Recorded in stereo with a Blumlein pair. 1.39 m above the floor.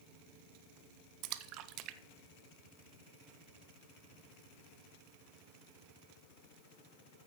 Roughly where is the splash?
Ahead right.